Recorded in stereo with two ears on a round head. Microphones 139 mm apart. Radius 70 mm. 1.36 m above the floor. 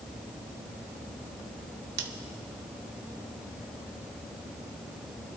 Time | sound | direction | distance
2.0 | scissors | 80° right | 1.2 m